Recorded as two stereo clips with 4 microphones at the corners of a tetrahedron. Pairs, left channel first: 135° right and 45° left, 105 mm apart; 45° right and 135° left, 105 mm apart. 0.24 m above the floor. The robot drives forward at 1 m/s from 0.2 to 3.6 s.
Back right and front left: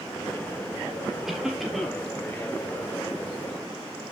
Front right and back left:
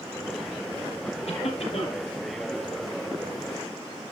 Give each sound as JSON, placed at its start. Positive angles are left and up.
{"t": 1.2, "sound": "a cough", "azimuth_deg": -40, "distance_m": 6.5}